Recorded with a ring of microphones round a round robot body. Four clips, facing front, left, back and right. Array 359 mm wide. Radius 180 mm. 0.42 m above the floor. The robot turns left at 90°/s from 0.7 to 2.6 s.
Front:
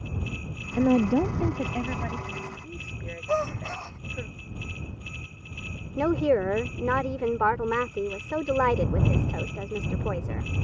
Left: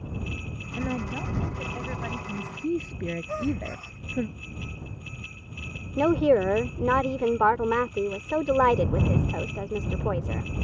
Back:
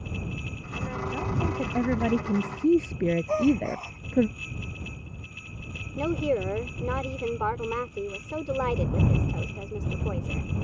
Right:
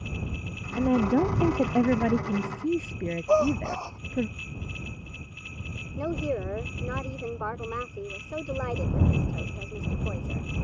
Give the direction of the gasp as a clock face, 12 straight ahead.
3 o'clock.